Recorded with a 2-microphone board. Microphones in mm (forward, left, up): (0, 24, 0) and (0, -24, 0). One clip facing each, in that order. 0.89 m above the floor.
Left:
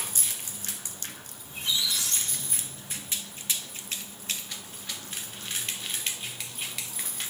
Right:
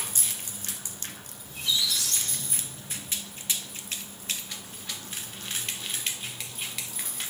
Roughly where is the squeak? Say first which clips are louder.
Right 1 dB; left.